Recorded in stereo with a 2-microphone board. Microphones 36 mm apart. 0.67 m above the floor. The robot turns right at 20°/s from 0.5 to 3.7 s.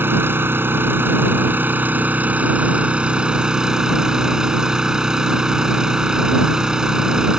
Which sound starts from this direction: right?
An engine running, at 0.0 s.